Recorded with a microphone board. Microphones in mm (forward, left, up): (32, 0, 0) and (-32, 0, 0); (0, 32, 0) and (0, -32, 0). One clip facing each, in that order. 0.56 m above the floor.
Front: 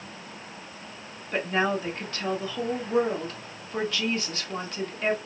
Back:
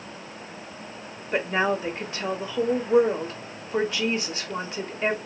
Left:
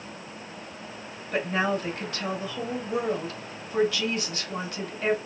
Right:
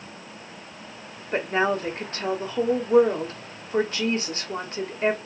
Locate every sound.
1.3 s a woman speaking: 120° right, 1.2 m